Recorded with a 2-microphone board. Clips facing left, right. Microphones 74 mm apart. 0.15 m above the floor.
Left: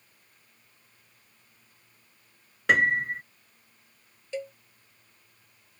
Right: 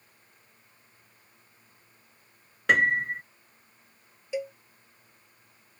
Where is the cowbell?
10° right (ahead or behind).